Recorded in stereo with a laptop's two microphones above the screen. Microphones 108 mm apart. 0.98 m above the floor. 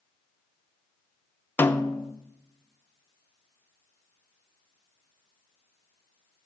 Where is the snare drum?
20° left (ahead or behind), 0.5 m.